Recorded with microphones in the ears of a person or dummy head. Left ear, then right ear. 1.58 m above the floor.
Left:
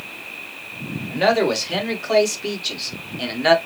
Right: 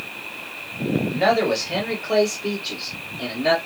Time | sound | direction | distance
1.1 | a man speaking | 30° left (ahead or behind) | 2 m